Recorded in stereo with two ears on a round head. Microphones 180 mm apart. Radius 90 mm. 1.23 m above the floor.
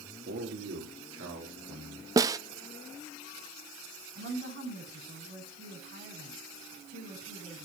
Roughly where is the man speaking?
Right.